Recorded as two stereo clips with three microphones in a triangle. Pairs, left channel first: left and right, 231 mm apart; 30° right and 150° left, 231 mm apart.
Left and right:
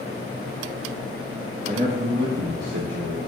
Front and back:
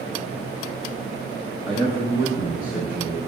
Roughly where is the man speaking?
Ahead right.